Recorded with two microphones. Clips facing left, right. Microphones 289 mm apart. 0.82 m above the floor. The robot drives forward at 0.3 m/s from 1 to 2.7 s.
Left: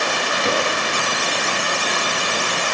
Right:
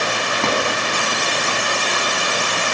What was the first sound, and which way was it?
A drawer, 70° right (ahead or behind).